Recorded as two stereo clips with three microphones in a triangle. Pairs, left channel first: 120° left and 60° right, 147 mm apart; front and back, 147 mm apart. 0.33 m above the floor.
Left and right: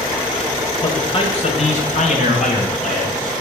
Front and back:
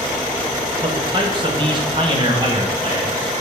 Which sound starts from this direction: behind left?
A man speaking, at 0.8 s.